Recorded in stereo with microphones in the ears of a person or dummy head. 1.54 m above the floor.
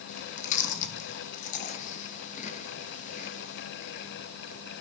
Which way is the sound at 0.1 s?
40° left (ahead or behind).